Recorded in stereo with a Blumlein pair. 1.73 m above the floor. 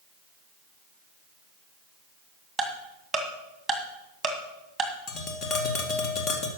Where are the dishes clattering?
I don't hear dishes clattering.